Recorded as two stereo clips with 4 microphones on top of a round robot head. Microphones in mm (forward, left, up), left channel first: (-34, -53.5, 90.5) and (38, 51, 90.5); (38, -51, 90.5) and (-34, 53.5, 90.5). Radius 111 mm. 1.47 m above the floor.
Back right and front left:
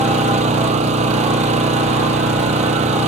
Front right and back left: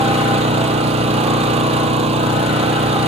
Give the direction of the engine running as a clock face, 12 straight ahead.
9 o'clock.